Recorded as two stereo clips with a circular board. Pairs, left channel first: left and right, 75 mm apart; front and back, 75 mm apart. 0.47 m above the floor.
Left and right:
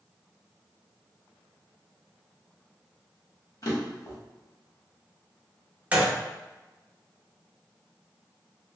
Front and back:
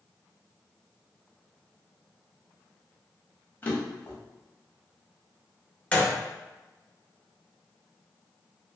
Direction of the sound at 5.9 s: 45° right.